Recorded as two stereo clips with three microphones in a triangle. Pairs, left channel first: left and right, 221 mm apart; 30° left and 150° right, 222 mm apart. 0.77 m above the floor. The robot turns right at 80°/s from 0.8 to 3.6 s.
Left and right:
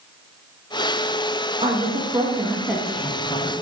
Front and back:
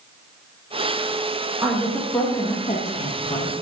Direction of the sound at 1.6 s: 90° right.